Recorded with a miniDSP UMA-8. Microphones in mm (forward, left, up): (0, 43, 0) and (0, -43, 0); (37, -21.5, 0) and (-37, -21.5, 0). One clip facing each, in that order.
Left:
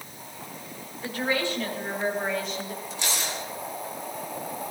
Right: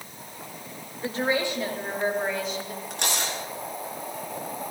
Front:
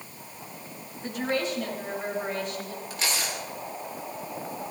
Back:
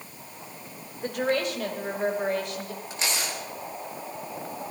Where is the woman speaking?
155° right, 3 m; by 2.8 s 175° left, 3.5 m.